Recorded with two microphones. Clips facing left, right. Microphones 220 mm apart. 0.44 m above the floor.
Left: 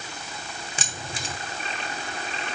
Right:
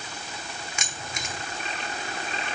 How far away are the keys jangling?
About 0.8 m.